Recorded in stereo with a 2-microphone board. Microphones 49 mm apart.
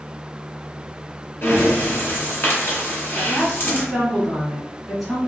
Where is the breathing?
45° left (ahead or behind), 1.6 m.